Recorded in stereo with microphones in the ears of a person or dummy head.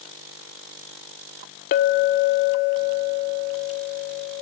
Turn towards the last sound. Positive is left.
turn(degrees=45)  # may be behind; listen again after turning